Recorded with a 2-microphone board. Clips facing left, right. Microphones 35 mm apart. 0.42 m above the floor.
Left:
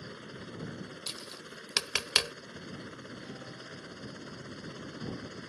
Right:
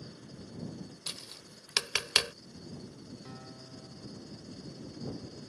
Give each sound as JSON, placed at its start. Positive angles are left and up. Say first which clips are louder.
{"t": 0.0, "sound": "a helicopter", "louder": "left 4 dB", "side_deg": 70}
{"t": 1.1, "sound": "tapping", "louder": "left 2 dB", "side_deg": -5}
{"t": 3.2, "sound": "a guitar", "louder": "left 3 dB", "side_deg": -10}